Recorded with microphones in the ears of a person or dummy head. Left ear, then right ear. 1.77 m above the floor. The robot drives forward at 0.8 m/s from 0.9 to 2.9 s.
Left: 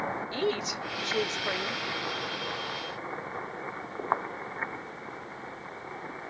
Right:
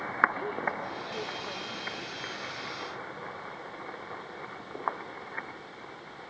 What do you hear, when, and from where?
0.3 s a woman speaking: 75° left (ahead or behind), 0.8 m; by 1.8 s 40° left (ahead or behind), 1.2 m